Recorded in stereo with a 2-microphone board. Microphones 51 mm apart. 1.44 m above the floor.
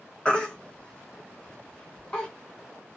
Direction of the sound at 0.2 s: 20° left (ahead or behind).